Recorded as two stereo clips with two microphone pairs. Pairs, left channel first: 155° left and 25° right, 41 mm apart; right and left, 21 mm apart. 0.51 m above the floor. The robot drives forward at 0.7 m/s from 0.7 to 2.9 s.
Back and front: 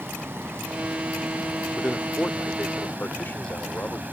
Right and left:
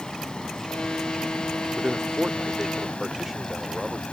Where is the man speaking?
110° left; by 4.0 s 165° left.